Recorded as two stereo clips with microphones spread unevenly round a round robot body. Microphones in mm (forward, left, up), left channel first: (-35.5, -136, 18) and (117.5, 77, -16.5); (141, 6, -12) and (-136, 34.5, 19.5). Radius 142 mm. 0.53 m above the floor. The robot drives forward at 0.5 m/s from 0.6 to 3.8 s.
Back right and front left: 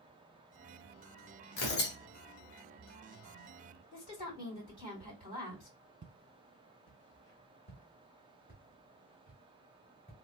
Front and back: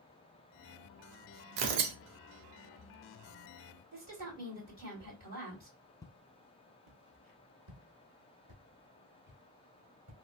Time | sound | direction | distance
1.6 | tearing paper | 175° left | 0.8 m
3.9 | a woman speaking | 155° right | 3 m
6.0 | footsteps | 70° left | 0.6 m